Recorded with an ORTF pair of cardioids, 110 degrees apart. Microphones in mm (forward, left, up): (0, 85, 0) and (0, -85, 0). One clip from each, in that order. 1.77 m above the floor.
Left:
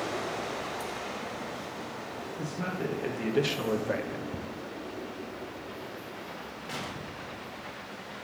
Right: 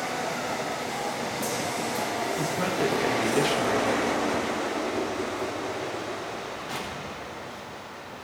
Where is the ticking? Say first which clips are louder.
Right 12 dB; 10° left, 0.8 m.